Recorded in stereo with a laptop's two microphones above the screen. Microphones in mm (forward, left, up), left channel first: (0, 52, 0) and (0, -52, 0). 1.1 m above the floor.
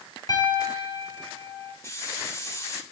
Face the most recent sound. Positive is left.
turn(degrees=30)  # may be behind; listen again after turning